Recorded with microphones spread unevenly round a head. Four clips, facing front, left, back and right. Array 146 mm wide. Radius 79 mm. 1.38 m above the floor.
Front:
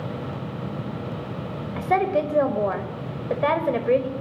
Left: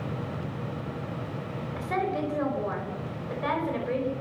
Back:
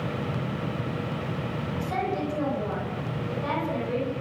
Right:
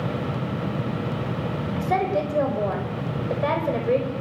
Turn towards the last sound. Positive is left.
turn(degrees=-25)